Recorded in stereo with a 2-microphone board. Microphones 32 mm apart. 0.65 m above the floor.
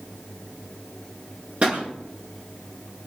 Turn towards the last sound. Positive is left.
turn(degrees=-45)  # may be behind; listen again after turning